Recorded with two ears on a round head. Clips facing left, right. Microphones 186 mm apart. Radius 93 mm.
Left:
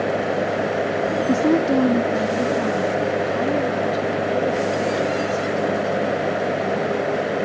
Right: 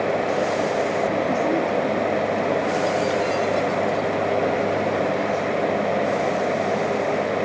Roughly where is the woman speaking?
Left.